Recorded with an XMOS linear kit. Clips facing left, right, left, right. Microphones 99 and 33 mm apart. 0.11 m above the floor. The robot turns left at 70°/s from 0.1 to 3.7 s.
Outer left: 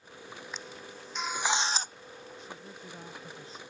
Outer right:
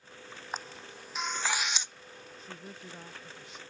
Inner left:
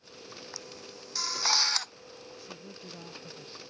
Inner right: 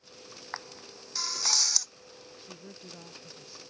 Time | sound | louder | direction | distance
0.5 | a camera shutter | outer right 2 dB, inner right 3 dB | 45° right (ahead or behind) | ?
2.4 | a woman speaking | outer left 1 dB, even | 140° right | ?